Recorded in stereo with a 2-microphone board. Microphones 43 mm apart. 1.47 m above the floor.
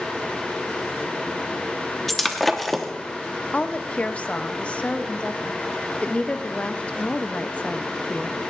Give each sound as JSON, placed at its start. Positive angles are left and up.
{"t": 2.1, "sound": "breaking glass", "side_deg": 5, "distance_m": 1.0}
{"t": 3.5, "sound": "a woman speaking", "side_deg": 30, "distance_m": 0.6}